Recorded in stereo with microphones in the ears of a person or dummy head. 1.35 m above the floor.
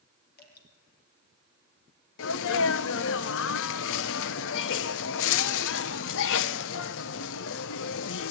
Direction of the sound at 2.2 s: 75° left (ahead or behind).